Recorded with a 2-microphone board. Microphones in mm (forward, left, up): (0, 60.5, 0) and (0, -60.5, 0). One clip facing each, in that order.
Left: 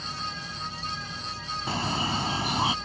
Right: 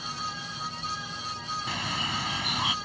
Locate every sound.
1.7 s a bird: 35° left (ahead or behind)